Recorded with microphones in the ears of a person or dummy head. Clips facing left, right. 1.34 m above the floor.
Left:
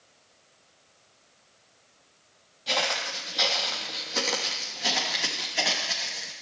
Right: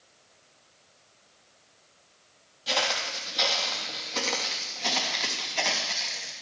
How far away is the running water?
No running water in this recording.